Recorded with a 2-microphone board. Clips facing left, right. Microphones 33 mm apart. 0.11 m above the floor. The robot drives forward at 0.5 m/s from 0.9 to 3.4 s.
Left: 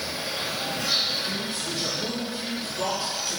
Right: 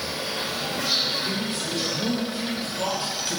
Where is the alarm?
No alarm in this recording.